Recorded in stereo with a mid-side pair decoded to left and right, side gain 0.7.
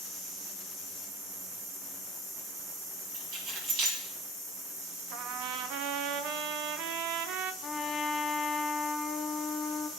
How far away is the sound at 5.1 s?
About 0.8 m.